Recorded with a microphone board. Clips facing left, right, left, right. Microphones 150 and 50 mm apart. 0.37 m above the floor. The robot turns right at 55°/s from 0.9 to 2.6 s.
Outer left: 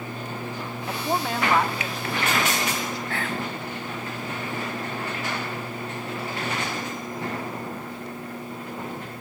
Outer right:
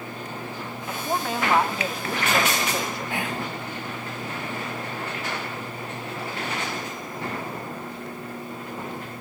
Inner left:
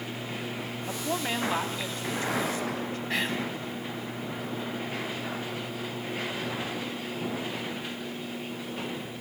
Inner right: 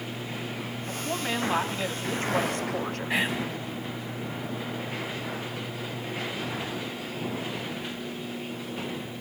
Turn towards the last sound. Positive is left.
turn(degrees=-15)  # may be behind; listen again after turning